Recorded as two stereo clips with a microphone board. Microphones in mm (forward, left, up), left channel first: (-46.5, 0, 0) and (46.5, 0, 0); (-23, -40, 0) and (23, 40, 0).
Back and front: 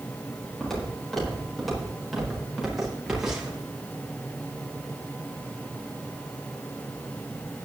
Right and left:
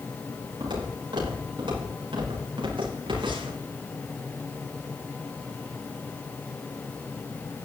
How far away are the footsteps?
About 9 m.